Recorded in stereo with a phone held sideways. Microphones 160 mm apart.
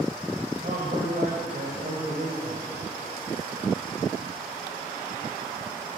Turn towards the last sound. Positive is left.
turn(degrees=-65)  # may be behind; listen again after turning